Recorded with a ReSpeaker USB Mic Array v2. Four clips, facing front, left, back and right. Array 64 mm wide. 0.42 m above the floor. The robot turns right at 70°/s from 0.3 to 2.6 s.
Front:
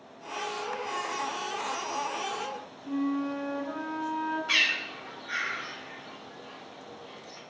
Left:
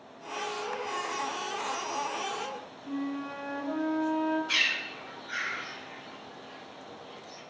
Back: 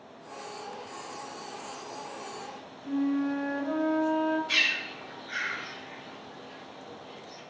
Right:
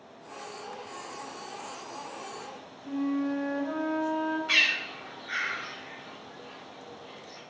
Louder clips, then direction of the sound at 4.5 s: Right 3 dB, front 1 dB; 60° right.